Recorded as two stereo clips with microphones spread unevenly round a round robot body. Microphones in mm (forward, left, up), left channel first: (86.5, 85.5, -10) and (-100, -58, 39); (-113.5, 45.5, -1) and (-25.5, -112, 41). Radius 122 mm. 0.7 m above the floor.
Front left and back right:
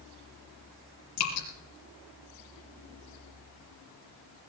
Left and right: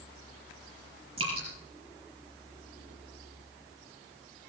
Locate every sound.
1.2 s dripping: 10° left, 5 m